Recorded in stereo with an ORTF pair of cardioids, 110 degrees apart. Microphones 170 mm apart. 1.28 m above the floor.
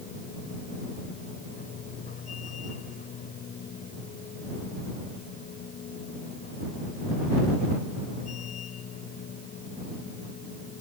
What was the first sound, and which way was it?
A machine running, 45° left.